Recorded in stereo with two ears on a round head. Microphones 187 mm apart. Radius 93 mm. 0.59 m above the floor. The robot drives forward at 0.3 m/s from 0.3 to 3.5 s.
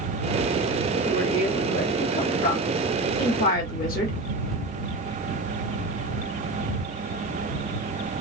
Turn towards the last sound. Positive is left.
turn(degrees=45)  # may be behind; listen again after turning